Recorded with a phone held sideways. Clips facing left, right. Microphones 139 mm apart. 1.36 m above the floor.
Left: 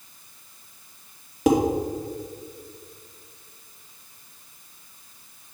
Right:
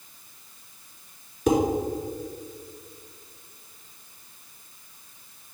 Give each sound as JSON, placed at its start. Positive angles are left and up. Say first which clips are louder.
{"t": 1.5, "sound": "dishes clattering", "louder": "left 2 dB", "side_deg": 80, "distance_m": 2.0}